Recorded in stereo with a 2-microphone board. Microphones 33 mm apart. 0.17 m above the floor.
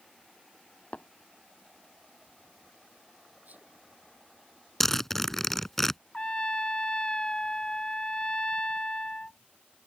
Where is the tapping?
50° left (ahead or behind).